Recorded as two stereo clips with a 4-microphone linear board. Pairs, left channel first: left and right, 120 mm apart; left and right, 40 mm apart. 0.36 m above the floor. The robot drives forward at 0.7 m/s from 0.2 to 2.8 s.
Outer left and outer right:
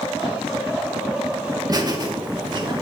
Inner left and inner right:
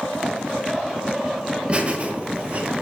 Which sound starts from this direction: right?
Laughter, at 1.7 s.